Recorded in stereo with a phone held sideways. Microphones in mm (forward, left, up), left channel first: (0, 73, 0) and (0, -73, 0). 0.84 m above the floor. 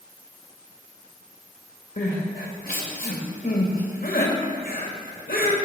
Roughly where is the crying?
Left.